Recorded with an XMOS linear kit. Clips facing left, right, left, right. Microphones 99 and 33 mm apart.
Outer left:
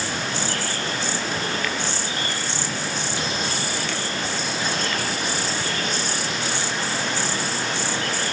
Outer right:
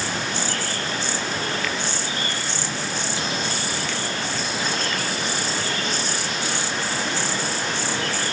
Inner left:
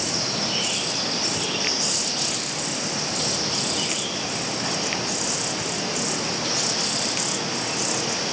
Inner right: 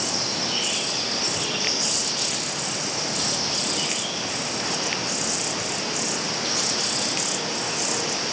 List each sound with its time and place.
Only background noise.